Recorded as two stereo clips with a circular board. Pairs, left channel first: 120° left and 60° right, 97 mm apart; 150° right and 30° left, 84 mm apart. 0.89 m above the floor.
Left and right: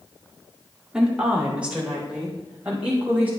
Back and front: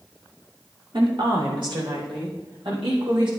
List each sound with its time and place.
0.9 s a woman speaking: 20° left, 2 m; by 3.3 s 15° left, 5.5 m